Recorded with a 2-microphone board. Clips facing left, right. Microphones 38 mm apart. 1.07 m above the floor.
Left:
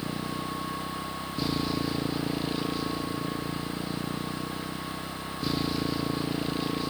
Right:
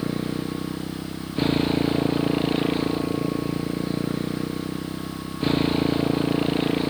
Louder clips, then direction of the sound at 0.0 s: Right 6 dB; 40° right (ahead or behind).